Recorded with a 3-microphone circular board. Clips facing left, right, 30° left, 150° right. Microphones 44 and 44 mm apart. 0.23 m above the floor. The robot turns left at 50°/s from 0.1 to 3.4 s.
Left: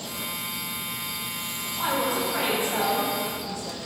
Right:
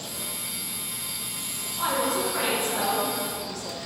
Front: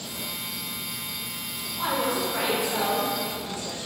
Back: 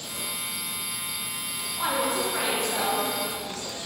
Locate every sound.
1.8 s a woman speaking: 145° left, 1.0 m; by 3.9 s 65° left, 1.0 m